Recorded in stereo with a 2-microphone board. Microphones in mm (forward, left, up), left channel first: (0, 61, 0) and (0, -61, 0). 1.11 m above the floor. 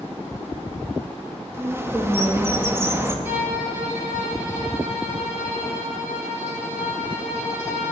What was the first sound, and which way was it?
A bird, 20° right (ahead or behind).